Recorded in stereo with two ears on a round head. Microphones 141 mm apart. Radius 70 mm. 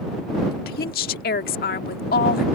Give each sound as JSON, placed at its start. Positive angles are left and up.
{"t": 0.5, "sound": "a woman speaking", "side_deg": 65}